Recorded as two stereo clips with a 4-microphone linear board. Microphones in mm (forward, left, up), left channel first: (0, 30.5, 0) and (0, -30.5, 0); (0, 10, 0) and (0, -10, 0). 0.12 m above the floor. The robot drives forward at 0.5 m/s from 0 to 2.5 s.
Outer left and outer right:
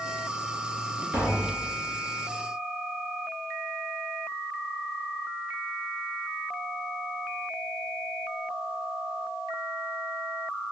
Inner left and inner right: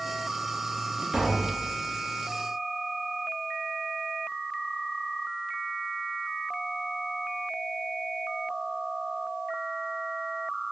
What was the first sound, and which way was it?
Tapping, 25° right (ahead or behind).